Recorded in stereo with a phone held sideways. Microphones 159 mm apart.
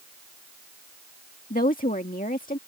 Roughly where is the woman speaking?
Left.